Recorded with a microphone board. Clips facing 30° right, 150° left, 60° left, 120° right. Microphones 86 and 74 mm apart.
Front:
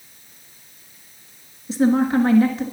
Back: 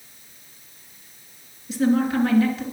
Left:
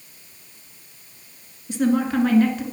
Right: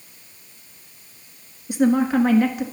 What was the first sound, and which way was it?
A woman speaking, 50° right.